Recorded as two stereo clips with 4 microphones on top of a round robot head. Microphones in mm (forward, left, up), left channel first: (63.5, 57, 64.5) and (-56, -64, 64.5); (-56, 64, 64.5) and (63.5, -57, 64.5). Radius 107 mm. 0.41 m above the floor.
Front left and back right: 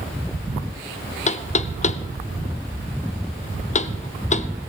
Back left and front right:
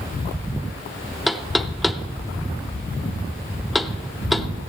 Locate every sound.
1.3 s knocking: 45° left, 0.6 m